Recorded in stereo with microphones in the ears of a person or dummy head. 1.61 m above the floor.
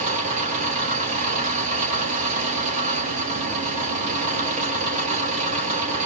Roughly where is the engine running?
Right.